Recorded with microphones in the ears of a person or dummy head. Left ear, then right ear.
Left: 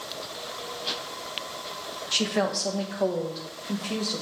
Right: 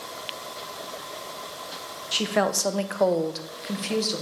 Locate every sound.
2.1 s a woman speaking: 5° right (ahead or behind), 0.7 m; by 4.2 s 70° right (ahead or behind), 1.4 m